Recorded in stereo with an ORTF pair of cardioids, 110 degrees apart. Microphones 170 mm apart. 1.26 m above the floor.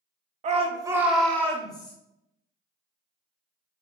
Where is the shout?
45° right, 0.7 m; by 1.9 s 30° left, 1.0 m.